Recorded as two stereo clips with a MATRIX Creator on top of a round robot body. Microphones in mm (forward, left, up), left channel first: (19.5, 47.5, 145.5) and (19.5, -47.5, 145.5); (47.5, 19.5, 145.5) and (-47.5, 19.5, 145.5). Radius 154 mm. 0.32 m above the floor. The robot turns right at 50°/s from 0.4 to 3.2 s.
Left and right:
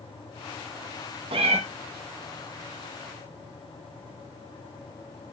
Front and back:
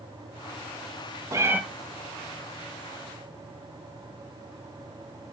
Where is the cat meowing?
120° right, 1.0 m; by 1.6 s 105° right, 1.0 m.